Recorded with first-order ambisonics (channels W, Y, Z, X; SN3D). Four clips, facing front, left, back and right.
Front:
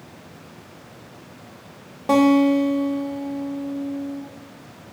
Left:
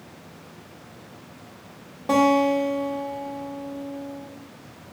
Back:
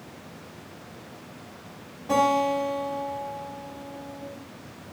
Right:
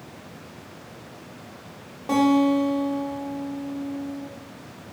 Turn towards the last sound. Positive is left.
turn(degrees=5)